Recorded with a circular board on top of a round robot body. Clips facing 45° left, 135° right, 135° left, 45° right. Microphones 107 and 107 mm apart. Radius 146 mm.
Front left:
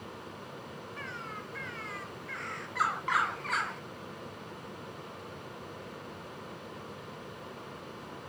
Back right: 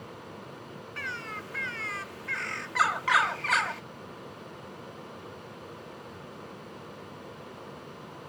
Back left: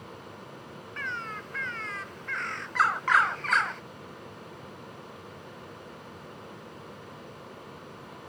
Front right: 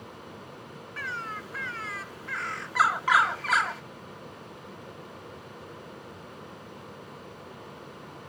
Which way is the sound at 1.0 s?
125° right.